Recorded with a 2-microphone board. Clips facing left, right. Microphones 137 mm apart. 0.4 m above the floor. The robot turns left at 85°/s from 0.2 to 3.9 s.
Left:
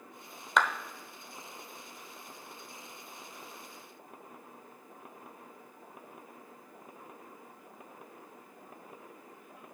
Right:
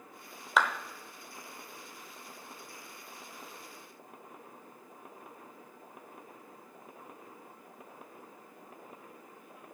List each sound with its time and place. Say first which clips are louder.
0.6 s a clap: even; 5° right (ahead or behind), 1.0 m; by 0.7 s 5° left (ahead or behind), 1.0 m